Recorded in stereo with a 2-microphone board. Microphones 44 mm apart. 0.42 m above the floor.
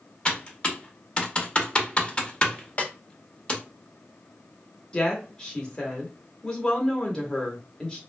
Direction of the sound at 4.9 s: 20° left (ahead or behind).